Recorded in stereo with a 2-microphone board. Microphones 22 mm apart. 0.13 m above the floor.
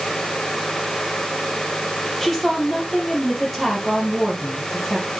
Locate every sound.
2.2 s a woman speaking: 10° left (ahead or behind), 4 m